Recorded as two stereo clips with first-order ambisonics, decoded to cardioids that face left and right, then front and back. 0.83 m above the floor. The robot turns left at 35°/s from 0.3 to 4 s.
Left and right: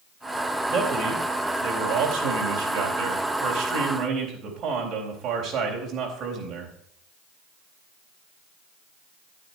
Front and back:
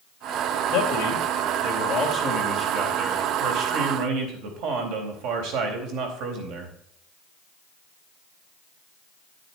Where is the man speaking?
40° right, 3.5 m; by 6.7 s 155° right, 3.5 m.